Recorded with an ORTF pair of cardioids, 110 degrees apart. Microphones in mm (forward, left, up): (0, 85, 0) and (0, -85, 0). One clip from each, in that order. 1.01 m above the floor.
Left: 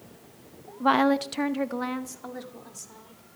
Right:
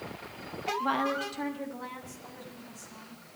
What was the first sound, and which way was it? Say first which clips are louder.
A woman speaking: left 9 dB; 35° left.